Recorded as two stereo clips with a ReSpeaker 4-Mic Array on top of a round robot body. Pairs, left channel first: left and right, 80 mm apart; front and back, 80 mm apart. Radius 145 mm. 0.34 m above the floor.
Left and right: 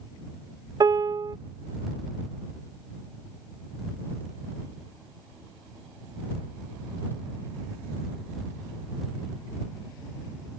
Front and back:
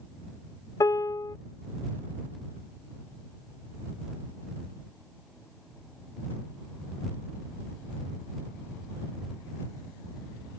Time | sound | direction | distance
0.8 | a piano | 50° right | ?